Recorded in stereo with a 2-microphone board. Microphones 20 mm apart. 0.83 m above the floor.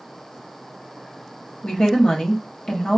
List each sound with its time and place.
1.6 s a woman speaking: 60° left (ahead or behind), 1.4 m